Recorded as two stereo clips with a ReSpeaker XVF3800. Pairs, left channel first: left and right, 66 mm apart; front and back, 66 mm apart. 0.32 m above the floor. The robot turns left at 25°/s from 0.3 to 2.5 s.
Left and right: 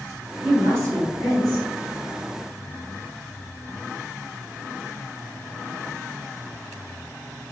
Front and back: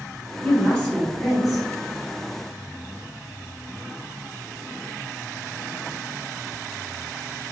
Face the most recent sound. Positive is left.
turn(degrees=-120)